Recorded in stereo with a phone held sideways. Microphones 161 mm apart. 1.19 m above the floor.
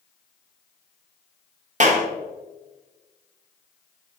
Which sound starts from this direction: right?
A clap, at 1.8 s.